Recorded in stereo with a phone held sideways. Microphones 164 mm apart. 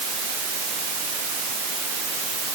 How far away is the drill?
No drill in this recording.